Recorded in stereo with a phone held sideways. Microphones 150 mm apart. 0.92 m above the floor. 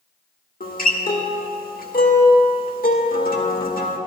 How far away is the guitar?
About 1.2 m.